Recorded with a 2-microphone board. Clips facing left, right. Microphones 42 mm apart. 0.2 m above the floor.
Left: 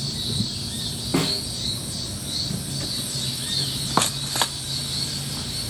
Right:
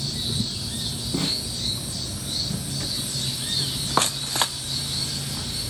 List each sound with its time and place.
1.1 s a snare drum: 85° left, 10 m